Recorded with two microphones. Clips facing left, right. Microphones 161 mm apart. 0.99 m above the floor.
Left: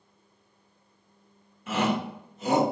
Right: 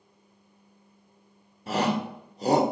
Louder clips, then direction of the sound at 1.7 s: Right 1 dB; 35° right (ahead or behind).